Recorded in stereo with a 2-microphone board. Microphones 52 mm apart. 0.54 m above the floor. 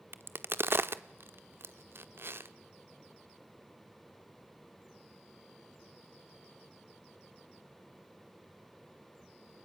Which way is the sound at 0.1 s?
50° right (ahead or behind).